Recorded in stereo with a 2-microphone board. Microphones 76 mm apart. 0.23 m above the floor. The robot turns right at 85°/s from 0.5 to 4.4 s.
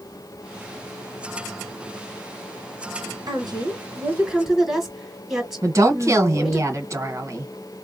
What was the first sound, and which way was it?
A woman speaking, 105° right.